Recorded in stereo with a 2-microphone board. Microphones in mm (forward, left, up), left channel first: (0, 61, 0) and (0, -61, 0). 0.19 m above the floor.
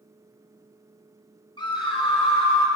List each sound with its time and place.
1.6 s a scream: 40° left (ahead or behind), 1.5 m; by 2.7 s 55° left (ahead or behind), 2 m